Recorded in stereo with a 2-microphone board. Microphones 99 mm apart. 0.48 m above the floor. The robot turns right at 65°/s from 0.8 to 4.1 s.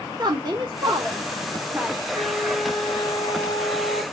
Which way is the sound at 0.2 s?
45° right (ahead or behind).